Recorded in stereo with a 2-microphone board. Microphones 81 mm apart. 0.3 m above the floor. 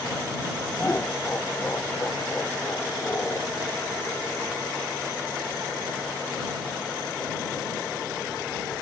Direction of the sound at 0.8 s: 25° left (ahead or behind).